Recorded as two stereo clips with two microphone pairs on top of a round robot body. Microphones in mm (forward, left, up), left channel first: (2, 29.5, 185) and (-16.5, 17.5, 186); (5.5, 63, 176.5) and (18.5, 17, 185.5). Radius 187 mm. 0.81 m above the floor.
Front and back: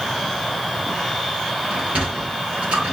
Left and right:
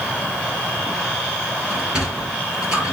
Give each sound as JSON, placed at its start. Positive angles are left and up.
{"t": 1.7, "sound": "a sliding door", "azimuth_deg": -150, "distance_m": 3.0}